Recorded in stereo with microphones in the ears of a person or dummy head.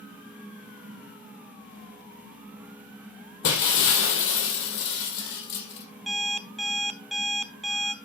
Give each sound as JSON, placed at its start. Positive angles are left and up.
{"t": 3.4, "sound": "breaking glass", "side_deg": 65, "distance_m": 2.5}
{"t": 6.1, "sound": "an alarm clock", "side_deg": -5, "distance_m": 0.6}